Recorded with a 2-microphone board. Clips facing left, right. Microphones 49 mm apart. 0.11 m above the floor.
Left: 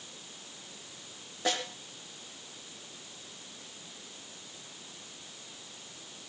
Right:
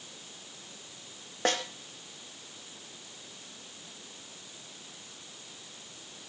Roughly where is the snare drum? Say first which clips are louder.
Right 2 dB; right.